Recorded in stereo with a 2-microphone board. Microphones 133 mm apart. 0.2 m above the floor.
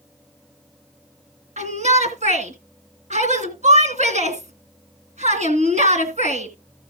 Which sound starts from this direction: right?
A shout, at 1.6 s.